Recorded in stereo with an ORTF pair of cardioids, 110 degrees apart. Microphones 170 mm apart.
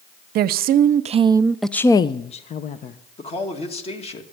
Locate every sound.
0.3 s a woman speaking: 70° right, 0.8 m; by 3.0 s 55° left, 1.0 m
3.2 s a man speaking: 35° left, 2 m